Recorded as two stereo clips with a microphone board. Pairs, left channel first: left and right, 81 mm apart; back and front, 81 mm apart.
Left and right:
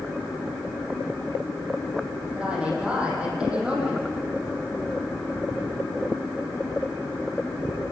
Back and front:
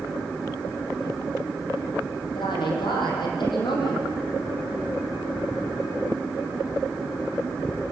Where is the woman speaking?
165° right, 8 m.